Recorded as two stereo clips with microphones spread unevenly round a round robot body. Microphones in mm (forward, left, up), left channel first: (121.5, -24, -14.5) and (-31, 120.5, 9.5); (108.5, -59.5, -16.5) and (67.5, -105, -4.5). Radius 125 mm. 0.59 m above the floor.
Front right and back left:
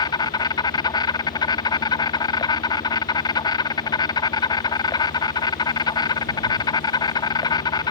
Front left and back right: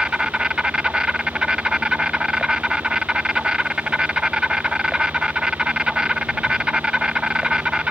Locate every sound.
0.0 s an insect: 55° right